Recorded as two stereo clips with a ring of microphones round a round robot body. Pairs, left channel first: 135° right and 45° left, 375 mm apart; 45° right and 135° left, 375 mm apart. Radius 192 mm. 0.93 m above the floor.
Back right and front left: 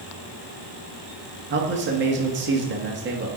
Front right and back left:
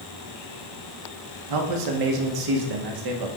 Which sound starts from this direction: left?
A man speaking, at 1.5 s.